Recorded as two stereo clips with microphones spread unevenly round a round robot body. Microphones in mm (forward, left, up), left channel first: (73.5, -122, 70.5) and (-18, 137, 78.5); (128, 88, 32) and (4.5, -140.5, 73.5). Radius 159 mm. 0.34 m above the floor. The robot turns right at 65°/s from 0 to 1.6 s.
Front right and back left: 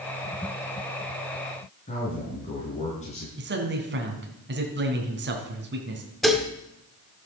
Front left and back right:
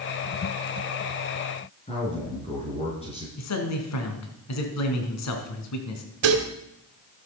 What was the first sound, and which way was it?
A man speaking, 5° right.